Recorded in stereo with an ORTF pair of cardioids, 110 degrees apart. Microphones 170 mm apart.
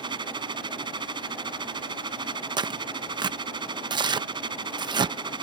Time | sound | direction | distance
0.0 | a machine running | 25° right | ?
2.6 | tearing paper | 25° right | ?